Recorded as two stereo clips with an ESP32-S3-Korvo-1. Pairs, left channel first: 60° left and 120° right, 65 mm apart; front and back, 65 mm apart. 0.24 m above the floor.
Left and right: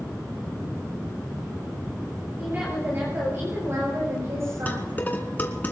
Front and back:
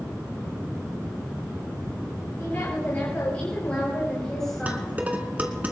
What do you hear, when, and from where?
2.4 s a woman speaking: 60° right, 6 m; by 5.0 s 90° right, 5.5 m
4.7 s dishes clattering: 120° left, 1.9 m